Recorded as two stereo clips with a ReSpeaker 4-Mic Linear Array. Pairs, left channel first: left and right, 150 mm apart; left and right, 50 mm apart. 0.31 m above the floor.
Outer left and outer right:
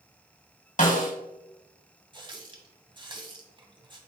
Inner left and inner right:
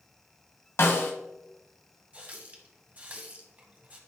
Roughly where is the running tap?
Right.